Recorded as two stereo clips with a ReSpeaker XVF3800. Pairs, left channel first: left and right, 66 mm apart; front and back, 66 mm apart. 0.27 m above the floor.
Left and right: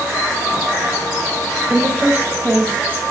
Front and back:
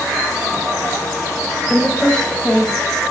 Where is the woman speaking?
70° right, 1.0 m.